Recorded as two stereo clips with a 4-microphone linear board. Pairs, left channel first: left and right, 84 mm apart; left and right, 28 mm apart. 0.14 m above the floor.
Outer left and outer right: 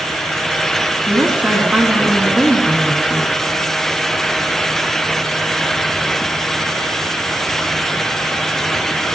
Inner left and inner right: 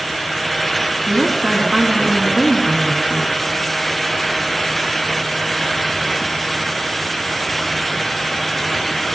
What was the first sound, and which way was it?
A woman speaking, 15° right (ahead or behind).